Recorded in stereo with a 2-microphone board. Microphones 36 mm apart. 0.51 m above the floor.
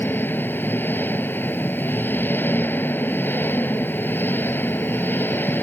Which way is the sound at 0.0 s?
80° left.